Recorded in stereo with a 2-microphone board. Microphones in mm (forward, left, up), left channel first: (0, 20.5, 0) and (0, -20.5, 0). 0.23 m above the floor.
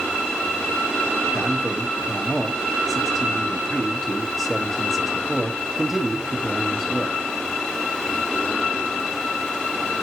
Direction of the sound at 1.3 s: 5° right (ahead or behind).